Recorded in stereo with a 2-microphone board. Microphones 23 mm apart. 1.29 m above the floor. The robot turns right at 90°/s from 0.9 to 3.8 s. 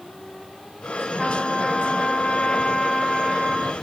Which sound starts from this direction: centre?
A trumpet, at 1.2 s.